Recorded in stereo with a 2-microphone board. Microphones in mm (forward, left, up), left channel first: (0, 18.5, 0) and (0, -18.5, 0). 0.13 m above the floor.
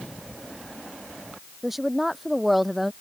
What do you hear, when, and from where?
1.6 s a woman speaking: 5° right (ahead or behind)